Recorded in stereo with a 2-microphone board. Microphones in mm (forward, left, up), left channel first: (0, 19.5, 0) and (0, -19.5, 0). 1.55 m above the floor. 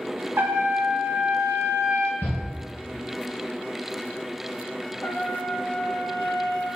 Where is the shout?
45° left (ahead or behind), 1.7 m.